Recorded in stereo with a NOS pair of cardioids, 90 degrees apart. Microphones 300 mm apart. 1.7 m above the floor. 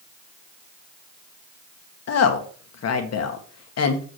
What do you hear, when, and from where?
2.1 s a woman speaking: 55° left, 1.6 m